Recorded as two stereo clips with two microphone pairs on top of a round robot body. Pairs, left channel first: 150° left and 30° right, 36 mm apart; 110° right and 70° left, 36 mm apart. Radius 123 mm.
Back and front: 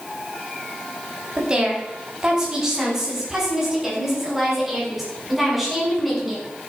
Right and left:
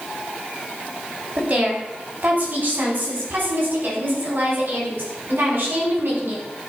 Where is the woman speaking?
30° left, 5 m; by 6.4 s 55° left, 7 m.